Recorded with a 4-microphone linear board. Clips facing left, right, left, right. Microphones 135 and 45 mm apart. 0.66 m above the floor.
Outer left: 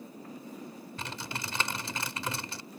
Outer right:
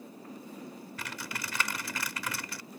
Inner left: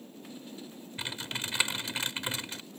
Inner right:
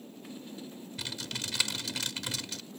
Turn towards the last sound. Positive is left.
turn(degrees=30)  # may be behind; listen again after turning